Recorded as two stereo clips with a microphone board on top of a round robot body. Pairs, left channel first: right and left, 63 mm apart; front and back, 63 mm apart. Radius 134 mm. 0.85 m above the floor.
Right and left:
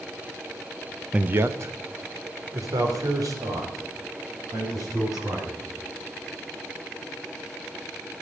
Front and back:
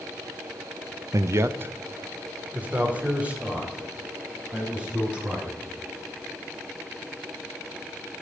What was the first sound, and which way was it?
A man speaking, 165° left.